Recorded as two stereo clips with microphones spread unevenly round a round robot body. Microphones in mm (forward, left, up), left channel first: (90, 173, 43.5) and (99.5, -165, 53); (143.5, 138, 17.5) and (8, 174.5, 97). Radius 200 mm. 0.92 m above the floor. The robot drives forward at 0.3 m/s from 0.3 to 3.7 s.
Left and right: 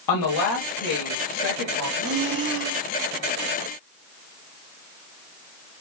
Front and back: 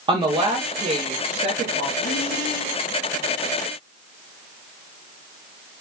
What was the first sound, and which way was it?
A woman speaking, 85° left.